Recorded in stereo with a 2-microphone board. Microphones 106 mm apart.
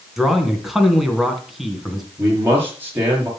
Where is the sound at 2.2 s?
20° right (ahead or behind), 6 m.